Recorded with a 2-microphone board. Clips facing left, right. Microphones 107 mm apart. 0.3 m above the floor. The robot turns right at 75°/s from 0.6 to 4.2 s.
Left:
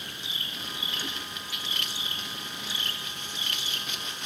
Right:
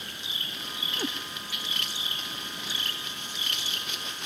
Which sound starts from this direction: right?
A cat meowing, at 1.0 s.